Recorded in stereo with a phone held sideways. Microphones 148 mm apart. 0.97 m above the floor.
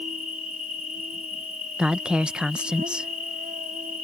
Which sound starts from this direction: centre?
A woman speaking, at 1.8 s.